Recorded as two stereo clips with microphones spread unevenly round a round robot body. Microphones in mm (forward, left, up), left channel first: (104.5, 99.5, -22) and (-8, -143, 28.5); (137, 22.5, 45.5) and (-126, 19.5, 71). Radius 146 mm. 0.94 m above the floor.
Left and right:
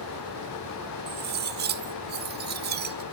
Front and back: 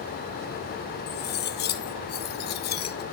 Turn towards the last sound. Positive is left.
turn(degrees=-55)